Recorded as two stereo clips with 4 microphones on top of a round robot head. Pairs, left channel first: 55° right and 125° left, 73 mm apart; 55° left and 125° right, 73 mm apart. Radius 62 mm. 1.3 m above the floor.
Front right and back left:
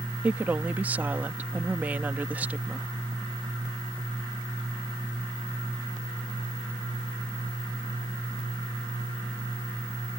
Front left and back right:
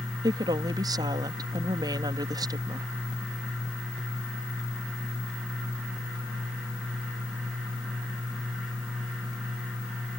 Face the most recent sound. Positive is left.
turn(degrees=-160)